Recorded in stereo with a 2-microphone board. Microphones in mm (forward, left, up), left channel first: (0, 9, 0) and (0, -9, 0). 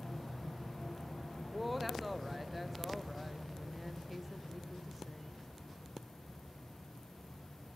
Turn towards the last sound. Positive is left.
turn(degrees=-5)  # may be behind; listen again after turning